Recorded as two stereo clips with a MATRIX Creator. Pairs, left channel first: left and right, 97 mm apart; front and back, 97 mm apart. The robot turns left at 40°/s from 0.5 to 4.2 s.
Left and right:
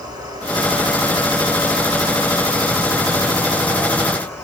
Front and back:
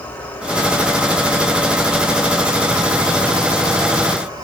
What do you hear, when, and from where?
0.0 s an insect: 65° right, 1.6 m; by 4.4 s 145° left, 1.6 m